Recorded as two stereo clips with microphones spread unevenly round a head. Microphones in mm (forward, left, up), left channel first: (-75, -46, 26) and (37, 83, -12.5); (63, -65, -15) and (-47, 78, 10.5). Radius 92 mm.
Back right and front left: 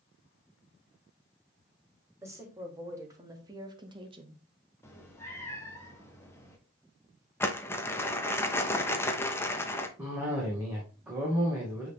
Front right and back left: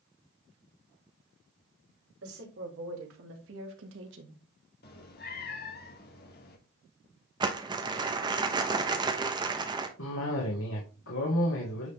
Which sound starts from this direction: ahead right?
A cough, at 10.0 s.